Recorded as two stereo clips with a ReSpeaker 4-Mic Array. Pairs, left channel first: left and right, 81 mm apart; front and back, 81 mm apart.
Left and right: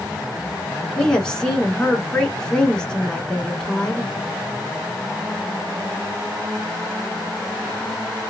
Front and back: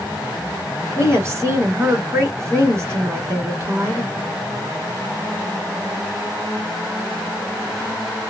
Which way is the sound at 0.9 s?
160° left.